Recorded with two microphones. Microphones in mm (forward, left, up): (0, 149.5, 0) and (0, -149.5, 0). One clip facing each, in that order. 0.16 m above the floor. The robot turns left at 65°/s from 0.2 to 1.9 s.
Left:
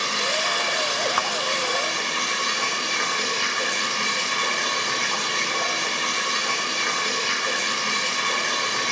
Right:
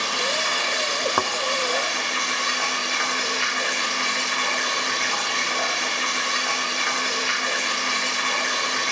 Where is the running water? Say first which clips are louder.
Even; 155° left, 9.5 m; by 8.9 s 45° left, 9.5 m.